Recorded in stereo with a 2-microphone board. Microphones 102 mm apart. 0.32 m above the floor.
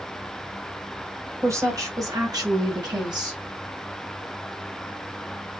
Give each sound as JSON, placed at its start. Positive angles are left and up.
{"t": 1.4, "sound": "a woman speaking", "side_deg": -30, "distance_m": 2.0}